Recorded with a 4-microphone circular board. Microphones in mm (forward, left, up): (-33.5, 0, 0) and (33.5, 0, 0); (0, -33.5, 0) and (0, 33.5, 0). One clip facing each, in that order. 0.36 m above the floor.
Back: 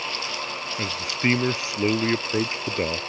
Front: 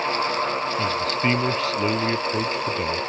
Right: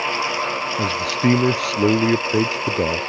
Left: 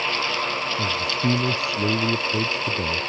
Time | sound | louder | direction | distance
0.8 | a man speaking | front 4 dB, right 6 dB | 100° right | ?